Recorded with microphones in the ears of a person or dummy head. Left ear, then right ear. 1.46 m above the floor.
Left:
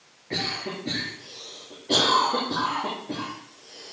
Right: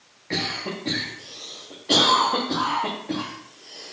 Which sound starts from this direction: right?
A cough, at 0.3 s.